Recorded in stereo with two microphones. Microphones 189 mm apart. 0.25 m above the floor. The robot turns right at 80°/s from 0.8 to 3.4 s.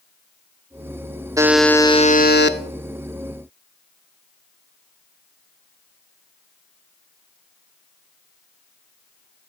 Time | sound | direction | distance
1.4 | a buzzer | 20° right | 0.7 m